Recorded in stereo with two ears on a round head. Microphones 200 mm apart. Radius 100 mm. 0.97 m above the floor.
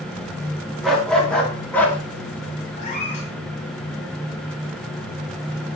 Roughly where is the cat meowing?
Left.